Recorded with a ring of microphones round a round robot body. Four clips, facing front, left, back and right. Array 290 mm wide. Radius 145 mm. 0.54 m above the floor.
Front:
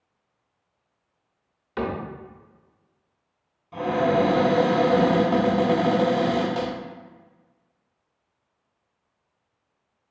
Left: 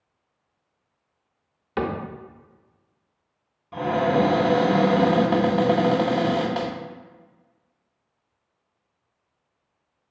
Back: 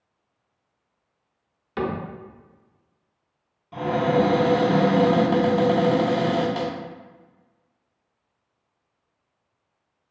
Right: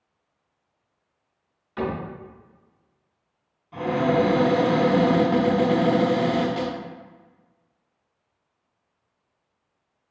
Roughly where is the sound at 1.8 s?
Left.